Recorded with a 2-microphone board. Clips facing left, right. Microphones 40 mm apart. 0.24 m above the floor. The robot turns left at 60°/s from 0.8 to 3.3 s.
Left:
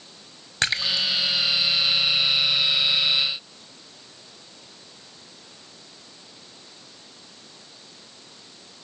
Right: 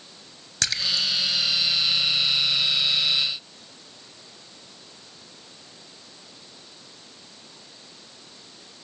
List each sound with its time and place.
0.6 s a splash: 25° left (ahead or behind), 1.4 m